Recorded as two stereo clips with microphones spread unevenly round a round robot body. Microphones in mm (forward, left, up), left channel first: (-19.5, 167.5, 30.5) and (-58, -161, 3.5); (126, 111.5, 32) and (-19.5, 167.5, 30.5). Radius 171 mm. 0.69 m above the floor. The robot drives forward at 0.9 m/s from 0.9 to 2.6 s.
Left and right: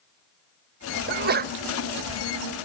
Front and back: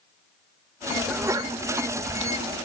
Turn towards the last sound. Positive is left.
turn(degrees=-165)